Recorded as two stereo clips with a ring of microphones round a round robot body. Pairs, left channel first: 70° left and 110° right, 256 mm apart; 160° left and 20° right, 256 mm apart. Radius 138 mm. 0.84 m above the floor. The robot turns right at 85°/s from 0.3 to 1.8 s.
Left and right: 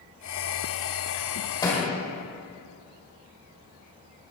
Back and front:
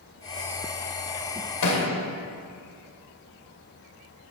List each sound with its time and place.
1.6 s a thud: 145° left, 1.9 m; by 1.9 s 160° left, 1.9 m